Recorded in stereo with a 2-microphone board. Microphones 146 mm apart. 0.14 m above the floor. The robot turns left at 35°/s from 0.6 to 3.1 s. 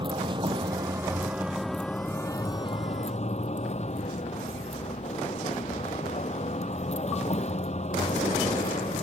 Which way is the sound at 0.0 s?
145° right.